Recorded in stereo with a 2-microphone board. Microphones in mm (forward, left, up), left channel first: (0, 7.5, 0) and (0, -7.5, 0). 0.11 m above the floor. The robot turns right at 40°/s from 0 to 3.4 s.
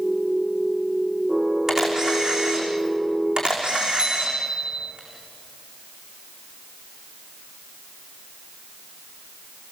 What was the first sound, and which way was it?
A camera shutter, 35° right (ahead or behind).